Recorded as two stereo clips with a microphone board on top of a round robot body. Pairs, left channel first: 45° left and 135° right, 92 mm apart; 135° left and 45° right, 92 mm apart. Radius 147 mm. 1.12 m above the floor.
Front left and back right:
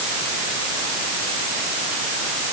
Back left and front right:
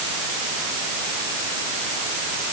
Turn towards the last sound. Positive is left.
No sound to turn to.